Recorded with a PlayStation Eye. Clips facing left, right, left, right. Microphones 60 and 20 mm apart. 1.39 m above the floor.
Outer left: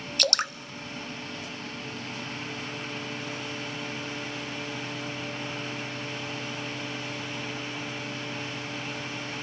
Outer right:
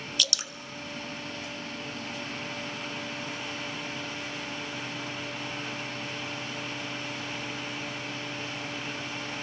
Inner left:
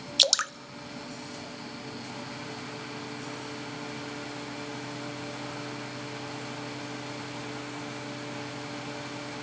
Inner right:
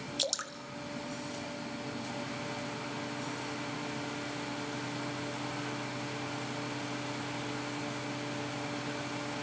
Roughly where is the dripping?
Left.